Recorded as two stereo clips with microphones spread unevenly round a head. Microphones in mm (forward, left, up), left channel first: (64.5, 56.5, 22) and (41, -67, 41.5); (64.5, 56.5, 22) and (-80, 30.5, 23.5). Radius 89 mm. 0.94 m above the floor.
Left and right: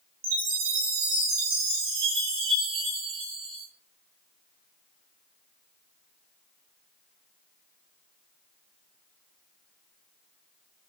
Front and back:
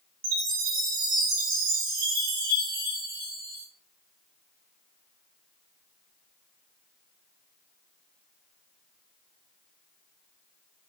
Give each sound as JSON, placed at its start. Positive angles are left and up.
{"t": 0.2, "sound": "a chime", "azimuth_deg": -130, "distance_m": 6.5}